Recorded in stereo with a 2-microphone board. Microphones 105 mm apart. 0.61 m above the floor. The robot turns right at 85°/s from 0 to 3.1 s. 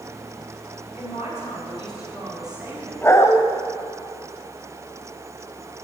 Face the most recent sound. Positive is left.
turn(degrees=25)  # may be behind; listen again after turning